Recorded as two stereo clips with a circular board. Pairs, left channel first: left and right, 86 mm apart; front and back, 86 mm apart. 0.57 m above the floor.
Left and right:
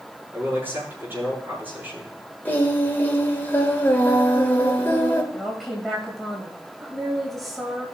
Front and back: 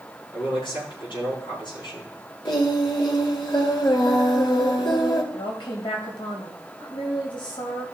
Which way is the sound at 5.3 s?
Straight ahead.